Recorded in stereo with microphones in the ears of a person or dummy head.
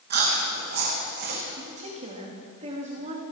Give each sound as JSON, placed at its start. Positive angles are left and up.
{"t": 0.1, "sound": "chewing", "side_deg": -60, "distance_m": 2.5}
{"t": 1.6, "sound": "a woman speaking", "side_deg": -45, "distance_m": 2.5}